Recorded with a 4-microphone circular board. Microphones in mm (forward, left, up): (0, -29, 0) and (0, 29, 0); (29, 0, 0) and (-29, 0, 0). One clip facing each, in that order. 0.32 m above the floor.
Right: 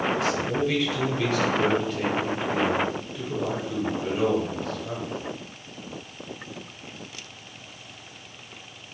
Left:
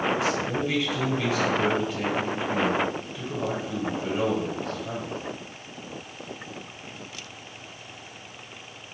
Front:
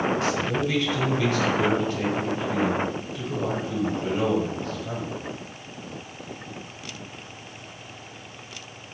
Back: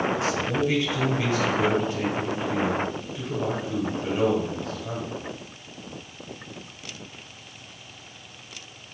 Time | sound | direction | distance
0.2 | a man speaking | 165° left | 1.3 m